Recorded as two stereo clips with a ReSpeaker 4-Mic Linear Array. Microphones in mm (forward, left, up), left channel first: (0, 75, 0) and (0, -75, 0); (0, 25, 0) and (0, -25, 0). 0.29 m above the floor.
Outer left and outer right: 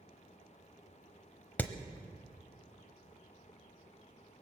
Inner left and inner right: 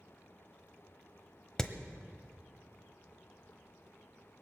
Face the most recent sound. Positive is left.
turn(degrees=10)  # may be behind; listen again after turning